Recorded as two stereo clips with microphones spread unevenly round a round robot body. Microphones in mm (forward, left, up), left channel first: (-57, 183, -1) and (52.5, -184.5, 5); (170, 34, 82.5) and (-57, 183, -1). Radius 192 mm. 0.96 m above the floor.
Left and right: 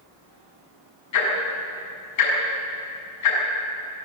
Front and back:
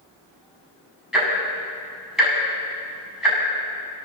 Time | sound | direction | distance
1.1 | ticking | 60° left | 7.5 m